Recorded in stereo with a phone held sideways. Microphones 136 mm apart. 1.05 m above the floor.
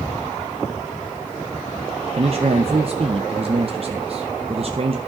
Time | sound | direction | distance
2.1 | a man speaking | 45° right (ahead or behind) | 0.7 m